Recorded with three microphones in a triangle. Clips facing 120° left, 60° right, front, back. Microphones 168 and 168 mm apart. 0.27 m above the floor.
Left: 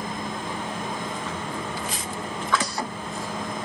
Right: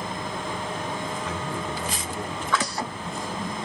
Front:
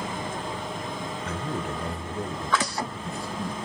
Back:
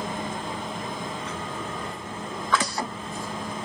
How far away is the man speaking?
About 2 m.